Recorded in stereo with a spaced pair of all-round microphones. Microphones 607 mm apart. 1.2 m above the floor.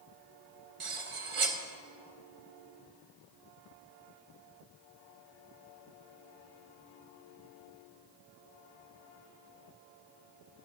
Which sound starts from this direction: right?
Cutlery clinking, at 0.8 s.